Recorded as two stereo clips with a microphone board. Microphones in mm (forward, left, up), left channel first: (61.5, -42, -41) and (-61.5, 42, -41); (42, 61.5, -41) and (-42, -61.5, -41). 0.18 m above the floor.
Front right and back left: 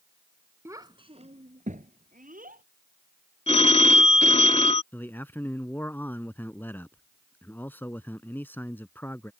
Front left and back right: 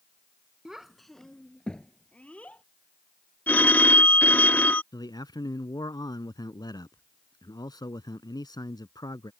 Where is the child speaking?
160° left; by 2.6 s 135° left.